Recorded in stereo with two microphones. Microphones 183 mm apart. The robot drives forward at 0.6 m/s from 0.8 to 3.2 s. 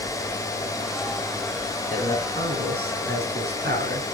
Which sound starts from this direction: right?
A man speaking, at 1.9 s.